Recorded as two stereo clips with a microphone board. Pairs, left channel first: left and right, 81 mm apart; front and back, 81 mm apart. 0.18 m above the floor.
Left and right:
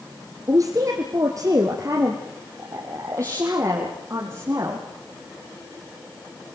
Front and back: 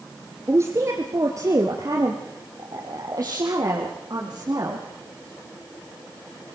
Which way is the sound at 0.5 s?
125° right.